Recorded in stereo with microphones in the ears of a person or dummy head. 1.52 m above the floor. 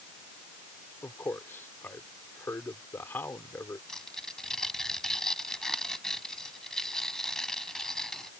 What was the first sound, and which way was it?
A man speaking, 15° left (ahead or behind).